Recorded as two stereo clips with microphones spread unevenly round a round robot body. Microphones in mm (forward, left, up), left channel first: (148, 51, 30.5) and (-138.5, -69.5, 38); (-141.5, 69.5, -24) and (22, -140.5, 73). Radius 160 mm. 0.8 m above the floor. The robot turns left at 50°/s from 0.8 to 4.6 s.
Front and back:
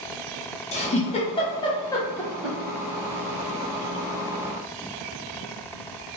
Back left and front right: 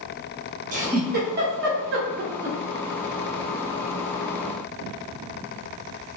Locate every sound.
0.7 s a giggle: 20° left, 0.9 m; by 2.6 s 70° right, 0.9 m